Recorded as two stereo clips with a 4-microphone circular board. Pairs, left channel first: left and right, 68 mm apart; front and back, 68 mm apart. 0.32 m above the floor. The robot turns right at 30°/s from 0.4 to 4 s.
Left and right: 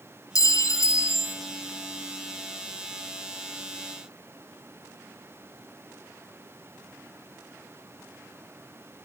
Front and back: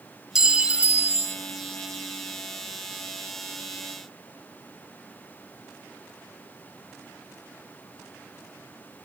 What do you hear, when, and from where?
0.3 s a clink: 100° left, 1.5 m; by 1.4 s 130° left, 1.5 m